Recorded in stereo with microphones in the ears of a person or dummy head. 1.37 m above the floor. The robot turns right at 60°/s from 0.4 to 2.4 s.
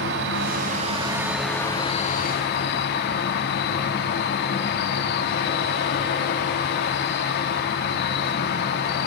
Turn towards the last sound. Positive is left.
turn(degrees=60)